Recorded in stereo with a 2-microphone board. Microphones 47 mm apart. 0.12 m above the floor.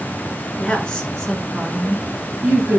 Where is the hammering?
No hammering in this recording.